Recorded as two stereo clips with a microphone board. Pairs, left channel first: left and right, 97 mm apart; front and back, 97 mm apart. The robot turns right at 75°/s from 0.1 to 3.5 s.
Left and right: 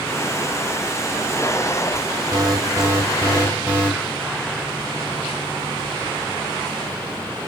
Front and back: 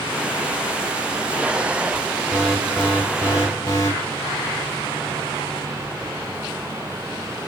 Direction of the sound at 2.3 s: 110° right.